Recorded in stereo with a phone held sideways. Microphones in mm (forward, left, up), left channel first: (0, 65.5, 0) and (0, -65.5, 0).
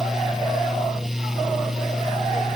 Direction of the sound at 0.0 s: 5° right (ahead or behind).